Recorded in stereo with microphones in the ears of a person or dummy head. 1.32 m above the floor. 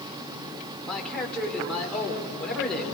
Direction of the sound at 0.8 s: 5° left (ahead or behind).